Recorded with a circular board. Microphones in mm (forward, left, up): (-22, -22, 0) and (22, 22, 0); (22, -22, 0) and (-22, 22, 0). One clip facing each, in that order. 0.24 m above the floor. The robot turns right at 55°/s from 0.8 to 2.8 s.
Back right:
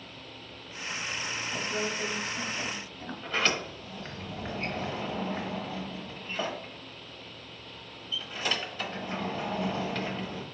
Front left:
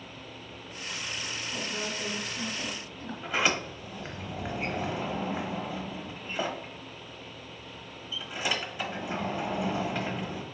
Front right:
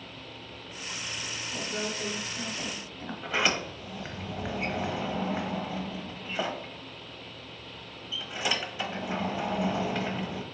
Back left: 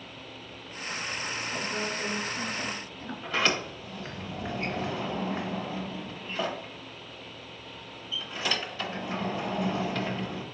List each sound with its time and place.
1.5 s a woman speaking: 160° right, 1.3 m; by 3.1 s 90° right, 1.3 m
3.2 s a sliding door: 10° right, 0.9 m